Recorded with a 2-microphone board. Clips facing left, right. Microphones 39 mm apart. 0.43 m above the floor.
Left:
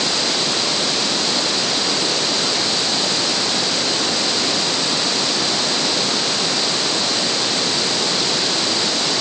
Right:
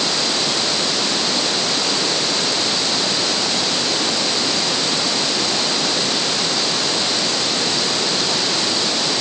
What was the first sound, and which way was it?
Only background noise.